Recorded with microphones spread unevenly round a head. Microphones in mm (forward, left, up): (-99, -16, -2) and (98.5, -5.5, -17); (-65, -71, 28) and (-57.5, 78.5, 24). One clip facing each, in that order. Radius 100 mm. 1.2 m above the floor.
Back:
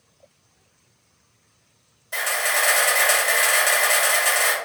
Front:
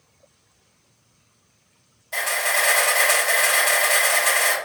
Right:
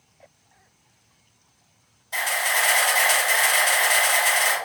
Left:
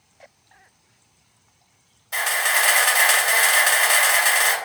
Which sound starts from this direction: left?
A camera shutter, at 2.1 s.